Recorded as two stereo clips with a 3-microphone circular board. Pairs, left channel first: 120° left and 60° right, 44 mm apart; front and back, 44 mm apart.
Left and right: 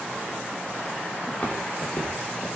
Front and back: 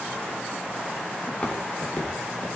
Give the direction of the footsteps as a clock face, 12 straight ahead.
10 o'clock.